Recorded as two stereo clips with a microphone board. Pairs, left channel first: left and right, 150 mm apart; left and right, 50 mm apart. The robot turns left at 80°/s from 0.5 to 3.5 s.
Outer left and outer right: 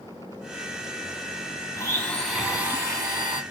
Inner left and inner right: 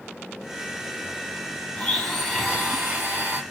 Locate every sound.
1.8 s a blender: 20° left (ahead or behind), 1.1 m; by 3.4 s 30° right (ahead or behind), 1.1 m